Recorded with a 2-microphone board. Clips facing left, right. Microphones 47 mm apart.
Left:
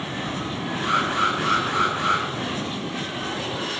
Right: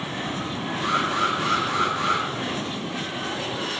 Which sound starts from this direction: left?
An alarm, at 0.8 s.